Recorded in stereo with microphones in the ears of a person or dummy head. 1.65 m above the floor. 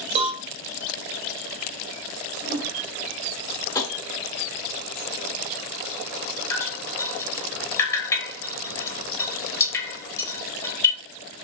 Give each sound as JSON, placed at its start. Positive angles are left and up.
{"t": 0.1, "sound": "a cowbell", "side_deg": -35, "distance_m": 1.8}
{"t": 2.4, "sound": "a whoosh", "side_deg": -55, "distance_m": 1.5}
{"t": 3.8, "sound": "tapping", "side_deg": 20, "distance_m": 0.8}
{"t": 6.5, "sound": "dripping", "side_deg": 15, "distance_m": 1.2}